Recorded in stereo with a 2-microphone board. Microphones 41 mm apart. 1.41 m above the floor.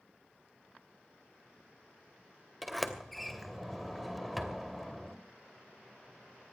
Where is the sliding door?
Centre (ahead or behind), 2.5 m.